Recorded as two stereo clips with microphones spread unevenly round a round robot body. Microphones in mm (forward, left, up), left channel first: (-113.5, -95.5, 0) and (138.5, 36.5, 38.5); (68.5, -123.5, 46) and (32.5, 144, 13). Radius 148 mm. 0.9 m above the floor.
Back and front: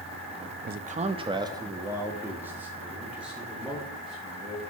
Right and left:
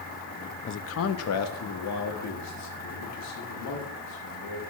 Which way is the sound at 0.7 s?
30° right.